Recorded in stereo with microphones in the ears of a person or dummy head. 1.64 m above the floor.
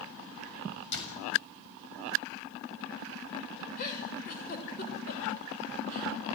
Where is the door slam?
60° left (ahead or behind), 7 m.